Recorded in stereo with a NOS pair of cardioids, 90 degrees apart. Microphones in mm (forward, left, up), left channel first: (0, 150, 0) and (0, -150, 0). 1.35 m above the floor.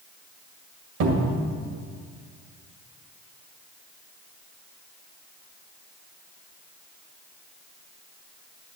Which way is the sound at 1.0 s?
70° right.